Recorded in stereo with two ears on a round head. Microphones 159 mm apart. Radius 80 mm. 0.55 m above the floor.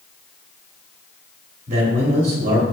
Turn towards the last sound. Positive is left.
turn(degrees=-40)  # may be behind; listen again after turning